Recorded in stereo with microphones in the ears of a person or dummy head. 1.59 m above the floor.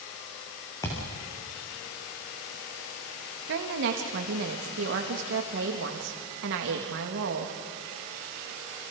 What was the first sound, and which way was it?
A thud, 15° left (ahead or behind).